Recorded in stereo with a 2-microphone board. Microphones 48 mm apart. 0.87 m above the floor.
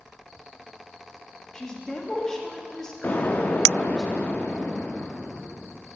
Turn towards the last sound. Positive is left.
turn(degrees=40)  # may be behind; listen again after turning